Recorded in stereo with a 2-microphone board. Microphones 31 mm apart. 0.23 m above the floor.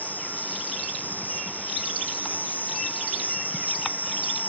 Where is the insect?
75° left (ahead or behind).